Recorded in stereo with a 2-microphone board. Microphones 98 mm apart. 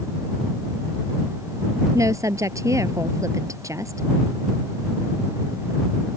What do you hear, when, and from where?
1.9 s a woman speaking: 35° right (ahead or behind)